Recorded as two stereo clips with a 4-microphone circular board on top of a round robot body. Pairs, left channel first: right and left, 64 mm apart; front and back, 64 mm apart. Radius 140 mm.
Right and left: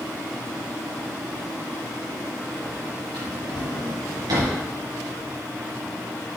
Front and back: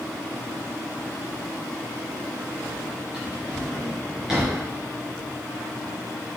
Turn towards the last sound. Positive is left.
turn(degrees=100)